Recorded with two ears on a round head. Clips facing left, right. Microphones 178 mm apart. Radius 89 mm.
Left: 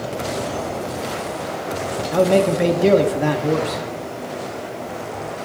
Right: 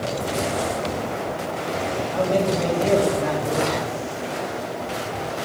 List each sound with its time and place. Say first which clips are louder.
2.1 s a man speaking: left 6 dB; 60° left (ahead or behind), 1.8 m